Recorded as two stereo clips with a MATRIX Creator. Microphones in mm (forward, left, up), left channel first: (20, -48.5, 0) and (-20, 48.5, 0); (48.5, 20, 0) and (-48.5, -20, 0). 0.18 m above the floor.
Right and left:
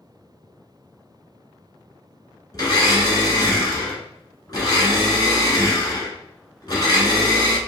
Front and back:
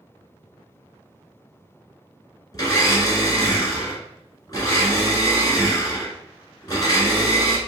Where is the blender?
25° right, 1.4 m.